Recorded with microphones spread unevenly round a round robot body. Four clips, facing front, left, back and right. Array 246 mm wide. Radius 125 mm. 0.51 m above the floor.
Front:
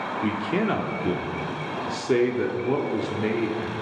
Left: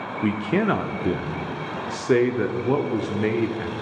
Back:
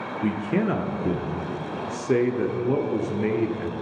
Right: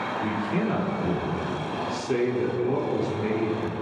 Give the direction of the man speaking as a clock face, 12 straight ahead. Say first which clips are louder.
Left 7 dB, back 2 dB; 9 o'clock.